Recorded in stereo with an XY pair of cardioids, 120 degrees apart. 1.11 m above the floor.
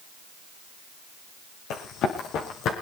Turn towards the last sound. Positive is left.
turn(degrees=60)